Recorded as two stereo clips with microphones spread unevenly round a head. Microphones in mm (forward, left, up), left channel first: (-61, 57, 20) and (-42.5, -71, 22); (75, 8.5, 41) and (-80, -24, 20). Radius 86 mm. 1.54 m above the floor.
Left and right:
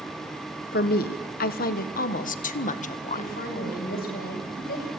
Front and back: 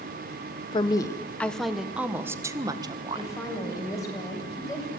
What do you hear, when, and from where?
0.7 s a woman speaking: 75° left, 1.0 m; by 3.4 s 130° left, 1.7 m
3.1 s a woman speaking: 80° left, 7 m